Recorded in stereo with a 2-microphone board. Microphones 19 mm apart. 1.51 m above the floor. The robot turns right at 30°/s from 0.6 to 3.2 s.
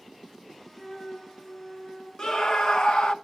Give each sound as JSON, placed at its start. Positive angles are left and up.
{"t": 0.7, "sound": "a flute", "azimuth_deg": 60, "distance_m": 8.0}
{"t": 2.2, "sound": "a scream", "side_deg": 35, "distance_m": 1.2}